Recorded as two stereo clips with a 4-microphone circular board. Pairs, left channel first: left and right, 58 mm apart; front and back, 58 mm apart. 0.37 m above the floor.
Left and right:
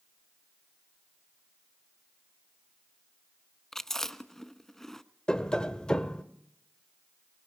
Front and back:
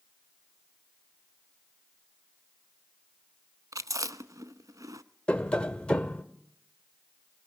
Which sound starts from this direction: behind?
Chewing, at 3.7 s.